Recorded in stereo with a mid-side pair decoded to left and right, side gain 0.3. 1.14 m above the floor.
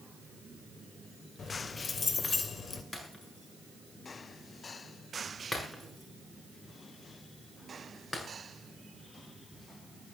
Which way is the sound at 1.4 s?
60° left.